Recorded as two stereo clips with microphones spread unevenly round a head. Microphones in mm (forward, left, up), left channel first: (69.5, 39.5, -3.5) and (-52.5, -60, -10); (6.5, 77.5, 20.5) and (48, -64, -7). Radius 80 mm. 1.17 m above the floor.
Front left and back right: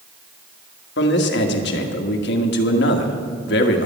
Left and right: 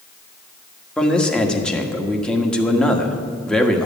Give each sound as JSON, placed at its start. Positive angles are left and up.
{"t": 1.0, "sound": "a man speaking", "azimuth_deg": 20, "distance_m": 1.5}